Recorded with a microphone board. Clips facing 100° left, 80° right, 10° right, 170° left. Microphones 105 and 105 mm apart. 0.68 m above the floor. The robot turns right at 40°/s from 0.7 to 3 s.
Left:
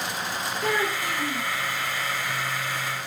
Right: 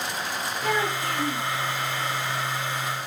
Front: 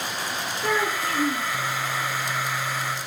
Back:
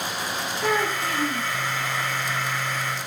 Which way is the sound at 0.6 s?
160° left.